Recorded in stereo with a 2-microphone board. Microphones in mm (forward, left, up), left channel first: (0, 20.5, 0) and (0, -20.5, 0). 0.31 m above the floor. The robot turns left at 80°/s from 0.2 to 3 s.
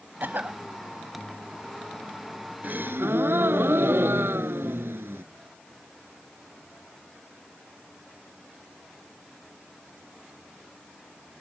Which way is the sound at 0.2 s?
95° right.